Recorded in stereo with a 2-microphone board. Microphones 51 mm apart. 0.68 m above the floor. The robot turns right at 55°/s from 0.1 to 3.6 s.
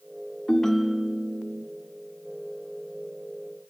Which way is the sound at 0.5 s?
165° left.